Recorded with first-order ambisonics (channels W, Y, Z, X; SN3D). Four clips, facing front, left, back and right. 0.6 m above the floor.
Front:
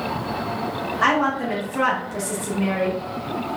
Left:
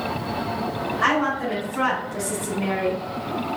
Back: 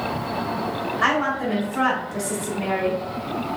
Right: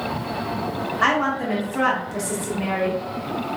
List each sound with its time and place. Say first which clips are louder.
1.0 s a woman speaking: right 1 dB, front 2 dB; 55° right, 1.1 m